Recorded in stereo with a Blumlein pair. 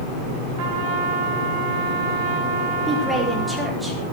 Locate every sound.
0.6 s a trumpet: 45° right, 3 m
2.9 s a woman speaking: 5° right, 4.5 m